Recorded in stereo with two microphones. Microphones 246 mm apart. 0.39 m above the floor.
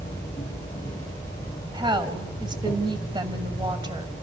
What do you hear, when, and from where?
0.0 s an insect: 10° left (ahead or behind), 9 m
1.7 s a woman speaking: 20° right (ahead or behind), 2 m